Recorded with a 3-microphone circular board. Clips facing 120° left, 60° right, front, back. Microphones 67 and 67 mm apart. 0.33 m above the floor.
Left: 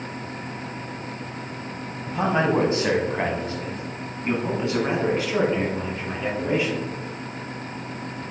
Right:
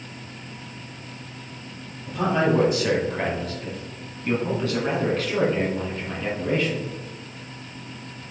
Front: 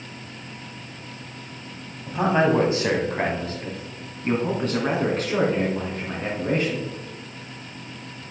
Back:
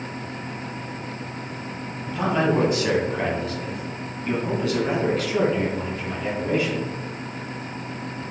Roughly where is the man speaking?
Ahead left.